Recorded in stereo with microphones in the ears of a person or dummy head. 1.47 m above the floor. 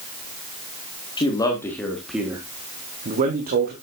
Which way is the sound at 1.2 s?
30° left (ahead or behind).